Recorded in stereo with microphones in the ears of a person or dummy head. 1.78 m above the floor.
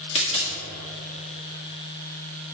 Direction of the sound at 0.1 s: 30° left (ahead or behind).